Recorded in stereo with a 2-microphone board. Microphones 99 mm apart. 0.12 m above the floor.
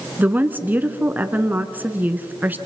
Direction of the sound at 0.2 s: 20° right (ahead or behind).